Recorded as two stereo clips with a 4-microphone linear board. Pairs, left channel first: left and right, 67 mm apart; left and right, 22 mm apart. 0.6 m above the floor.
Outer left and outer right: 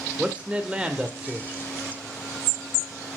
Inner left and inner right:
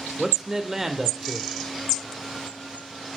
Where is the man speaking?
20° right (ahead or behind), 1.9 m.